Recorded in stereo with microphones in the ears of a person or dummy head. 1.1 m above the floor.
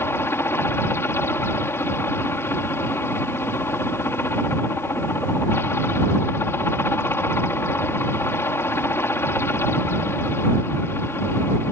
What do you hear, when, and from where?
0.0 s a helicopter: 10° left (ahead or behind)